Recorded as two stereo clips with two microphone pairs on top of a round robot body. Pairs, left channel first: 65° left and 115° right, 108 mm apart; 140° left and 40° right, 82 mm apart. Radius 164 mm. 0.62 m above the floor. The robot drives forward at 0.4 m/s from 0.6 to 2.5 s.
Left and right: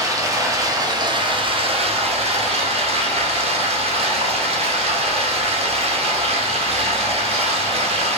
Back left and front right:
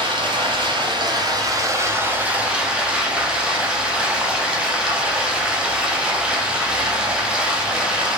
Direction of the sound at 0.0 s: 55° right.